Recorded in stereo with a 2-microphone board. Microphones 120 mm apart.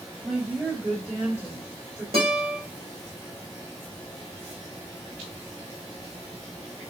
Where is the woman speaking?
20° right (ahead or behind), 2 m.